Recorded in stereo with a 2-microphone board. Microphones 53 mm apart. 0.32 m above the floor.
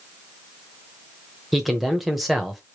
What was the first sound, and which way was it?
A man speaking, centre (ahead or behind).